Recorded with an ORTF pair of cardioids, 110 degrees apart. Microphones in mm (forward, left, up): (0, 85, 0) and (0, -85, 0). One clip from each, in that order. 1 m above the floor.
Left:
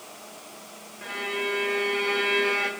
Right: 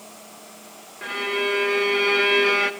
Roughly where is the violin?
Ahead right.